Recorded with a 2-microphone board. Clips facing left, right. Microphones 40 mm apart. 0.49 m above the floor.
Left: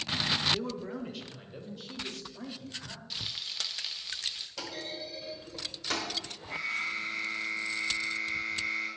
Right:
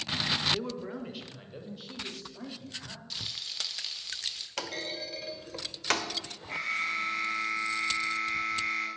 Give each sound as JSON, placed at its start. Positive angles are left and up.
{"t": 0.5, "sound": "a man speaking", "side_deg": -10, "distance_m": 1.0}
{"t": 3.1, "sound": "frying", "side_deg": 10, "distance_m": 1.0}
{"t": 4.6, "sound": "a clunk", "side_deg": -65, "distance_m": 1.0}
{"t": 6.5, "sound": "an alarm", "side_deg": -60, "distance_m": 2.0}